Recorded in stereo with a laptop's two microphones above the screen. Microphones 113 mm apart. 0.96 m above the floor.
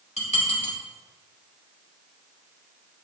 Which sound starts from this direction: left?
Dishes clattering, at 0.2 s.